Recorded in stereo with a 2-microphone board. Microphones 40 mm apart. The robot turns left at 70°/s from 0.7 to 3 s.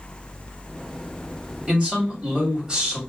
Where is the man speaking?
60° right, 1.5 m; by 3.0 s 150° right, 1.5 m.